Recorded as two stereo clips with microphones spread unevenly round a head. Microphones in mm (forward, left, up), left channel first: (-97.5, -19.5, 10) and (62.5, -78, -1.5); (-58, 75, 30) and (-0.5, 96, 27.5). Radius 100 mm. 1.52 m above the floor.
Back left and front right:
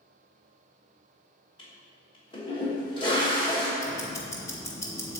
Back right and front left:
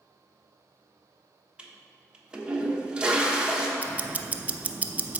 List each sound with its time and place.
1.6 s a toilet flushing: 95° left, 1.2 m
3.8 s ticking: 85° left, 0.6 m